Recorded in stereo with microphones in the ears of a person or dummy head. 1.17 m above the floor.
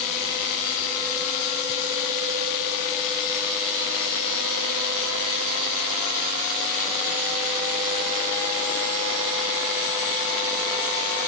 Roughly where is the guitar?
No guitar in this recording.